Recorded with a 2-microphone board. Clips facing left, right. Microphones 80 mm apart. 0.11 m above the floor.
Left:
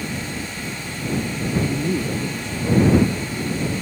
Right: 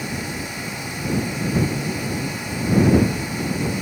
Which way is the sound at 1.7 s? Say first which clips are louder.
Left 3 dB; 80° left.